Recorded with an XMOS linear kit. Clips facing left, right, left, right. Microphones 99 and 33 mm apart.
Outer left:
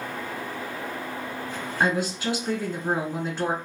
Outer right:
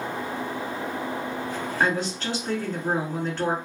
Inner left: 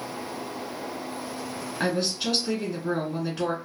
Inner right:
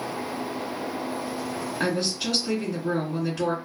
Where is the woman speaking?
10° left (ahead or behind), 1.5 m.